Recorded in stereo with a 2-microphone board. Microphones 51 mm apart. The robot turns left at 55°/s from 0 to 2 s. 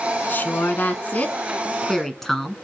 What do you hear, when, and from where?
0.3 s a woman speaking: 105° left, 1.5 m; by 2.6 s 10° left, 1.5 m